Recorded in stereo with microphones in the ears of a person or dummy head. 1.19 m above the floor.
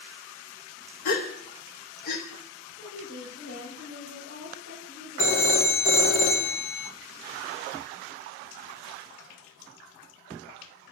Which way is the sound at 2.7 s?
65° left (ahead or behind).